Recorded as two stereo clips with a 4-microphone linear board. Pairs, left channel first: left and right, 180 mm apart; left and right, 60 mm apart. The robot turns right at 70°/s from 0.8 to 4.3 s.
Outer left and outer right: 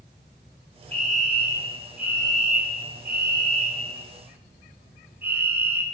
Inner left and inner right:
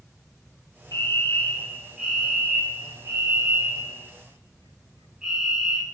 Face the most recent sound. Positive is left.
turn(degrees=-10)